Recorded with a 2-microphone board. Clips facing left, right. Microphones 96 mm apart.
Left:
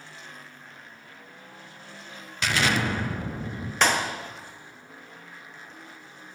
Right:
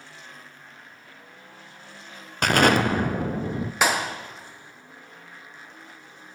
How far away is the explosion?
About 0.6 m.